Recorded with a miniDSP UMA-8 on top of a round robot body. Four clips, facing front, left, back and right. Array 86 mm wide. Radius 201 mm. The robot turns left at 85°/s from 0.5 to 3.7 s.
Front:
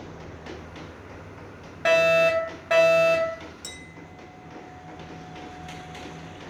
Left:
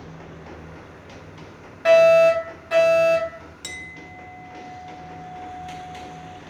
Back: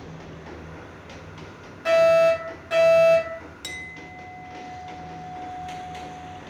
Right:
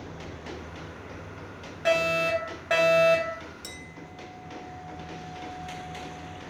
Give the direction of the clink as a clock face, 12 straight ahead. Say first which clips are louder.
Left 4 dB, back 4 dB; 7 o'clock.